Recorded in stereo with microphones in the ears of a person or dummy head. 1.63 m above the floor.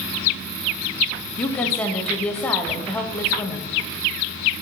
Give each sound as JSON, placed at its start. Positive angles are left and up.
{"t": 1.4, "sound": "a woman speaking", "side_deg": 10, "distance_m": 0.6}